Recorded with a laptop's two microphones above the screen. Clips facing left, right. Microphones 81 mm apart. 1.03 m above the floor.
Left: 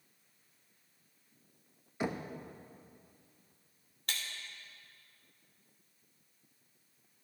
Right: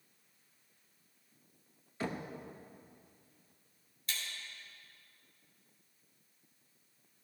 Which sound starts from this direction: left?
Breaking glass, at 4.1 s.